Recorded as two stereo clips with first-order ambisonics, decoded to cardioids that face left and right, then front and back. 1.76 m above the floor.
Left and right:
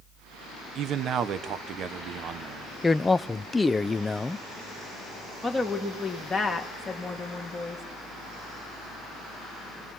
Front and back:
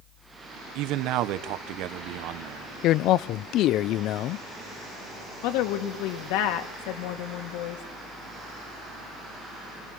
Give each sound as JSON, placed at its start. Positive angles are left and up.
{"t": 0.8, "sound": "a man speaking", "azimuth_deg": -145, "distance_m": 1.6}
{"t": 2.8, "sound": "a man speaking", "azimuth_deg": 10, "distance_m": 0.6}
{"t": 5.4, "sound": "a woman speaking", "azimuth_deg": 5, "distance_m": 2.5}